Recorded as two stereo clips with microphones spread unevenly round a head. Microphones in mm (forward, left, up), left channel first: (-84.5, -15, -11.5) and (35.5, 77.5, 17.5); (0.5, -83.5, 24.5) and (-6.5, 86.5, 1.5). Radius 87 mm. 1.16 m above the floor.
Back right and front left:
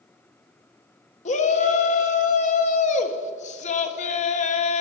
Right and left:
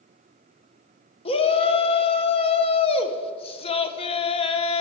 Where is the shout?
145° right, 1.0 m.